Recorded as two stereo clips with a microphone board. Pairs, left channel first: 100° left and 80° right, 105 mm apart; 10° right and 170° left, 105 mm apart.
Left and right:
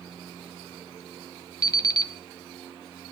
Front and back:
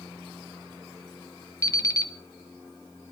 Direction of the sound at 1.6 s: 45° left.